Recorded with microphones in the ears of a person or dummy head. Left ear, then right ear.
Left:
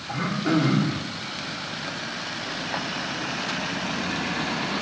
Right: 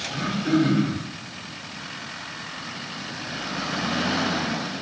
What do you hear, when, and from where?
0.1 s throat clearing: 30° left (ahead or behind), 3 m